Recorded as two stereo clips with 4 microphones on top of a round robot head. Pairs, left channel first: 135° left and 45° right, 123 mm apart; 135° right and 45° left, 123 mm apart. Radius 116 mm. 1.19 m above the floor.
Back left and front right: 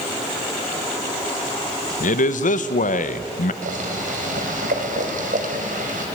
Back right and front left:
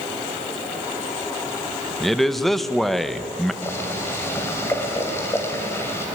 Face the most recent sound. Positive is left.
turn(degrees=-65)